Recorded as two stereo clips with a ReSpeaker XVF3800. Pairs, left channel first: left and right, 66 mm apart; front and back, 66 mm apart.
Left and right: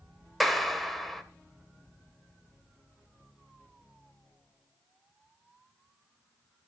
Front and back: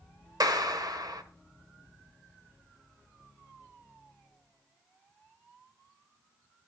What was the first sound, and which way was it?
A clap, straight behind.